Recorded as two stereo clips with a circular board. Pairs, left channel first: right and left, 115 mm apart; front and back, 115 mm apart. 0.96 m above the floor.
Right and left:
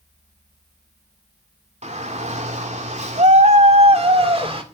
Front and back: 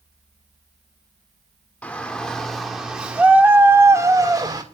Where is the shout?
80° left, 2.5 m; by 4.6 s 130° left, 3 m.